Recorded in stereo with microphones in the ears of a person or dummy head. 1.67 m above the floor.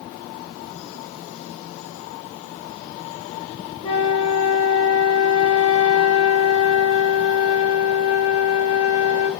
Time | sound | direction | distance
3.8 | a flute | 35° left (ahead or behind) | 2.5 m